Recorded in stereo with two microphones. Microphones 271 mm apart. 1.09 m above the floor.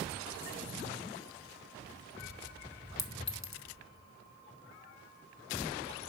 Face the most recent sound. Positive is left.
turn(degrees=65)  # may be behind; listen again after turning